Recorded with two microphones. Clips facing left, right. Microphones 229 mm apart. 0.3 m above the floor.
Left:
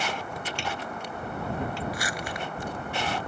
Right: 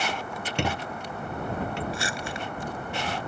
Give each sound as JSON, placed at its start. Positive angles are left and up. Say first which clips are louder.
{"t": 0.6, "sound": "a squeak", "louder": "right 4 dB", "side_deg": -60}
{"t": 1.9, "sound": "crumpling", "louder": "right 1 dB", "side_deg": -25}